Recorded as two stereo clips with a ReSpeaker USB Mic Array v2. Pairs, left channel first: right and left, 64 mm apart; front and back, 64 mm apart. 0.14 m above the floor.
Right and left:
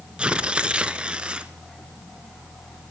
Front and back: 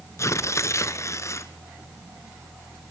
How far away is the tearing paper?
About 1.3 m.